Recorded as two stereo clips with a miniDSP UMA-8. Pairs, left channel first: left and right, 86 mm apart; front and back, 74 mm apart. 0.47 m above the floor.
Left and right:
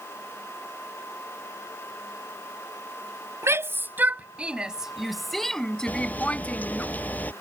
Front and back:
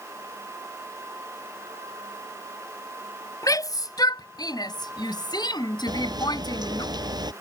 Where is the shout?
35° right; by 6.9 s 20° left.